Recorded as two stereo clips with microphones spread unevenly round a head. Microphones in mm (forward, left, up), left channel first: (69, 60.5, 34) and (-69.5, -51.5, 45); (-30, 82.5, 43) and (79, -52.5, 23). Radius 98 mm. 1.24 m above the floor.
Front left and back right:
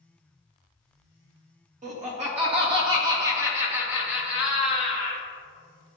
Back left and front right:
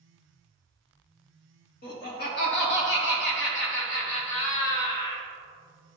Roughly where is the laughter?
Behind.